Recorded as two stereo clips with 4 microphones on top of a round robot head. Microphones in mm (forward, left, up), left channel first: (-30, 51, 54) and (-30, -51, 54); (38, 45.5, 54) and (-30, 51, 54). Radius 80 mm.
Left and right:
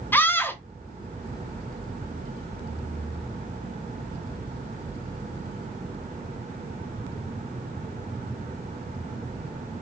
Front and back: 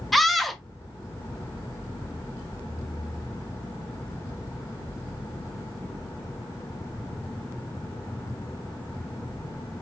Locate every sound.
0.1 s a scream: 85° left, 0.9 m